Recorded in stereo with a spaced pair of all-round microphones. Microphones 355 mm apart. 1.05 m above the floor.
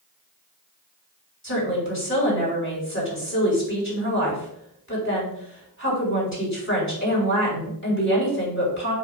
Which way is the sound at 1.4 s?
35° left (ahead or behind).